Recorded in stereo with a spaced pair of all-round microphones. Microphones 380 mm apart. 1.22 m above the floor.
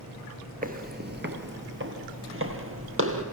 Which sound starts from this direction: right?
Footsteps, at 0.6 s.